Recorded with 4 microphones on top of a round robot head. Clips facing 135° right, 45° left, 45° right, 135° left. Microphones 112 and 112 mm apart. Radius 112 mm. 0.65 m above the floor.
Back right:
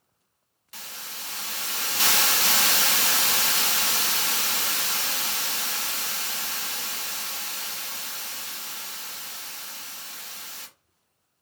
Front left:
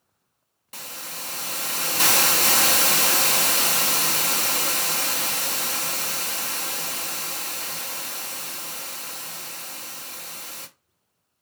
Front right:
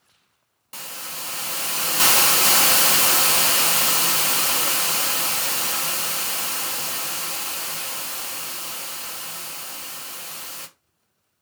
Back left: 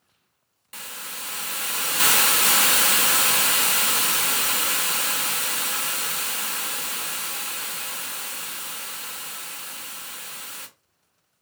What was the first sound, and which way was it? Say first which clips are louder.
A hiss: front left 4 dB, front right 2 dB; 10° left.